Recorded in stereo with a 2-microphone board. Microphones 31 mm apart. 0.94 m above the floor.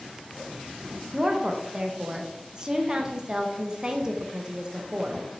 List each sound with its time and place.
1.1 s a woman speaking: 25° right (ahead or behind), 0.6 m